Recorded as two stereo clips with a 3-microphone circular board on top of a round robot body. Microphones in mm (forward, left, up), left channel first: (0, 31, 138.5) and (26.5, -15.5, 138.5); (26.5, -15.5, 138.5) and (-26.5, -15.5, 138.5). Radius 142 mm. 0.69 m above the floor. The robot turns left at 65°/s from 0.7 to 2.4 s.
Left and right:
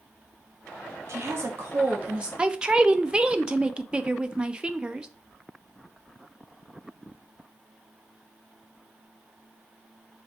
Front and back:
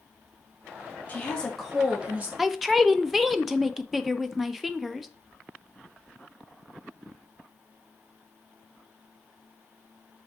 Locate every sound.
1.1 s a woman speaking: 50° right, 1.1 m; by 2.3 s 130° right, 1.1 m
2.4 s a man speaking: 95° right, 0.6 m